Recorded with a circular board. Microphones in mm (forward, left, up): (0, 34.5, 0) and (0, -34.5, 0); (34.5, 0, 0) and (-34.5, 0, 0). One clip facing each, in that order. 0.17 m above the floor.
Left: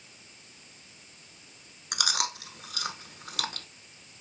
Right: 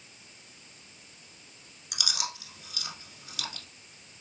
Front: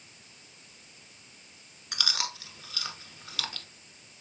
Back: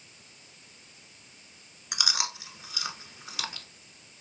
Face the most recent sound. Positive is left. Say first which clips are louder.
# left 5 dB, back 2 dB
turn(degrees=110)